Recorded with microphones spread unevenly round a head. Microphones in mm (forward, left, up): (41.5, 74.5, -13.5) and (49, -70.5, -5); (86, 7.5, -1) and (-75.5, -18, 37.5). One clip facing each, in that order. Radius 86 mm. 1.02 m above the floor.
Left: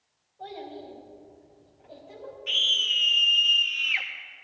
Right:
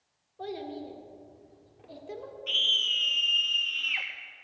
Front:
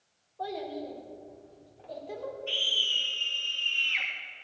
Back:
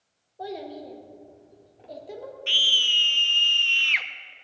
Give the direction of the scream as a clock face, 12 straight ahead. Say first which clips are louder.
Left 1 dB, even; 6 o'clock.